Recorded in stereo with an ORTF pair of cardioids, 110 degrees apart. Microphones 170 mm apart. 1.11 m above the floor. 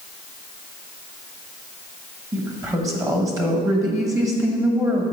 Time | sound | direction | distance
2.3 | a woman speaking | 20° right | 1.3 m